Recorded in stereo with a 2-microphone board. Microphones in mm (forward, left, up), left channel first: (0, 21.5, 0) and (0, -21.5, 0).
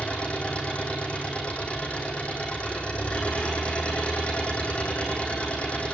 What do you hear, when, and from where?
0.0 s an engine running: 25° left (ahead or behind), 9 m